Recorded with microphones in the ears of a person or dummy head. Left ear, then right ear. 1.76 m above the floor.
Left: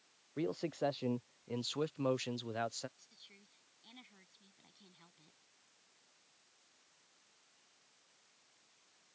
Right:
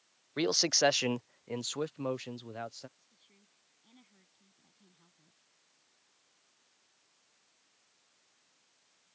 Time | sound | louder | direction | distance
0.4 | a man speaking | right 11 dB | 65° right (ahead or behind) | ?
3.0 | a woman speaking | left 7 dB | 25° left (ahead or behind) | ?